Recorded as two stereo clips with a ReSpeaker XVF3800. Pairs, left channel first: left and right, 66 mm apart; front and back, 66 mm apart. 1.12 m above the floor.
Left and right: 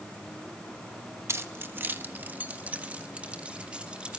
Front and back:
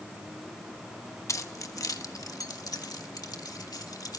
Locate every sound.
1.3 s keys jangling: 40° right, 1.0 m; by 4.2 s 15° right, 2.5 m